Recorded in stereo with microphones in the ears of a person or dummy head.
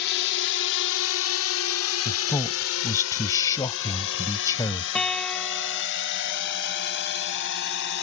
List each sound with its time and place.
0.0 s a drone: 60° left (ahead or behind)
2.0 s a man speaking: 15° left (ahead or behind)
5.0 s a guitar: 10° left (ahead or behind)